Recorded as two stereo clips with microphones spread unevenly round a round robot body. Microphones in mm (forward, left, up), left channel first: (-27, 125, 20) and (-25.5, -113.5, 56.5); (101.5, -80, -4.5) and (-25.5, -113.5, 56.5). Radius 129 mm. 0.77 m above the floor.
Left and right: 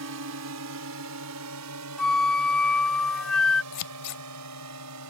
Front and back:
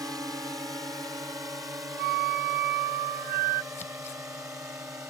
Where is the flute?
Straight behind.